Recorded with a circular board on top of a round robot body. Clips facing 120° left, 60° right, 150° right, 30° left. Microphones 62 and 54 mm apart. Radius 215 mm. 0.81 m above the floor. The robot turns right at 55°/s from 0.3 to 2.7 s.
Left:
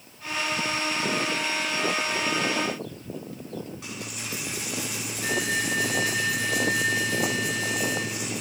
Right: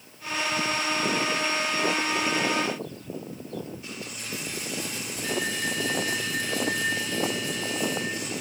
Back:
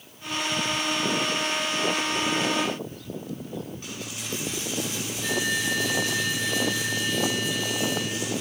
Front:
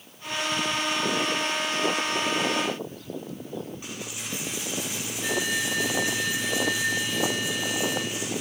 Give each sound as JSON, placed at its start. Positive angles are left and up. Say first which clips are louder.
{"t": 3.8, "sound": "a dropped coin", "louder": "left 1 dB, even", "azimuth_deg": 105, "distance_m": 3.0}